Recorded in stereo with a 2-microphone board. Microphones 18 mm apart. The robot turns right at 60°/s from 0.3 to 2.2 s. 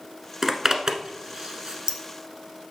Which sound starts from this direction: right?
A zipper, at 0.4 s.